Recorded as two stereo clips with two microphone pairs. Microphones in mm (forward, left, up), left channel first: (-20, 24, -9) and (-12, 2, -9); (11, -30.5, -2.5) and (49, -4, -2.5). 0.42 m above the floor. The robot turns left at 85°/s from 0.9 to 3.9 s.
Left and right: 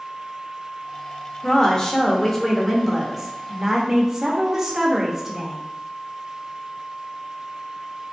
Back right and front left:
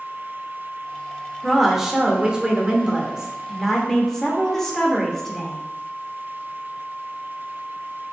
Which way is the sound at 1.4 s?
135° left.